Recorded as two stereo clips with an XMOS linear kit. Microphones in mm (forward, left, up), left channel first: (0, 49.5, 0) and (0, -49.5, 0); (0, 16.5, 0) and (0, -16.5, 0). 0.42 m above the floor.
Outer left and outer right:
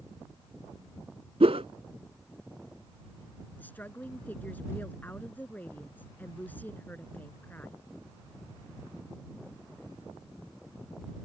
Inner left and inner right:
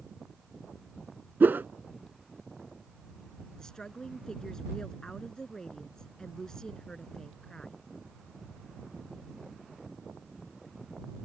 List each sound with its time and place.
1.4 s a whoosh: 80° right
3.6 s a woman speaking: 15° left (ahead or behind)